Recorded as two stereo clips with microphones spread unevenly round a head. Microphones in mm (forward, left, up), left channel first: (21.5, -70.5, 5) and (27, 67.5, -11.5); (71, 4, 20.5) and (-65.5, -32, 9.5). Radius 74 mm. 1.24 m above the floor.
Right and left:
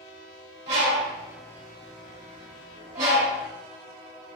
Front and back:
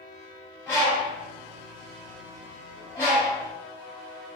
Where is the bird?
95° left, 1.7 m.